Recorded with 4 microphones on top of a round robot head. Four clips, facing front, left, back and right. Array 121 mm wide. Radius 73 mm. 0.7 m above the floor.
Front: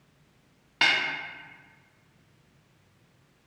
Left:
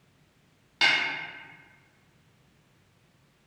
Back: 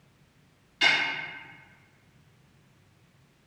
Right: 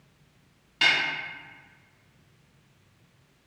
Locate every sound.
0.8 s a snare drum: 15° left, 0.6 m